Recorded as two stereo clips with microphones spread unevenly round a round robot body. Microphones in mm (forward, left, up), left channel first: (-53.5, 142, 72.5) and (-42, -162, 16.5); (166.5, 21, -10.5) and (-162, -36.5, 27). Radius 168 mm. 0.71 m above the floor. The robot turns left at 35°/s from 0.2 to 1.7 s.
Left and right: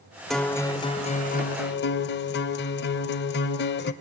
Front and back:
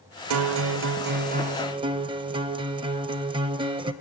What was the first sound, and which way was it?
A guitar, 175° left.